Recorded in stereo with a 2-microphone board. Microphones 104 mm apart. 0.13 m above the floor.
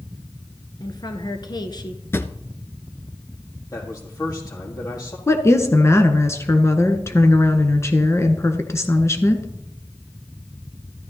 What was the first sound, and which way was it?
A woman speaking, 45° left (ahead or behind).